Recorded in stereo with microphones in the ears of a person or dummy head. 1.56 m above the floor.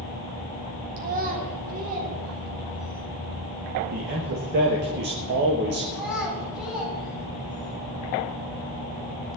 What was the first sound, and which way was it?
A child speaking, 40° right (ahead or behind).